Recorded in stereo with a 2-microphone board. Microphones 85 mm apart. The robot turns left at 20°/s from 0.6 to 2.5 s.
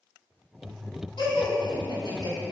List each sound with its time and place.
1.2 s laughter: 70° left (ahead or behind), 3 m; by 2.4 s 60° left (ahead or behind), 3 m